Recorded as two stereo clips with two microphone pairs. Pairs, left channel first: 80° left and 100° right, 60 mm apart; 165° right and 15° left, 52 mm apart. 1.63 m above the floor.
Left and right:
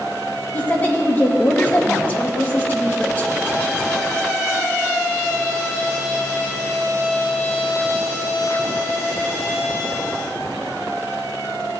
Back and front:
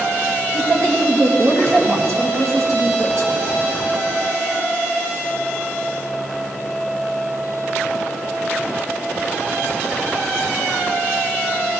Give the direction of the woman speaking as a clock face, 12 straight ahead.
11 o'clock.